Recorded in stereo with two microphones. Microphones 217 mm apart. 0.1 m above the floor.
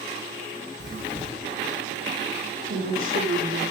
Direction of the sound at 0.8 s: 55° right (ahead or behind).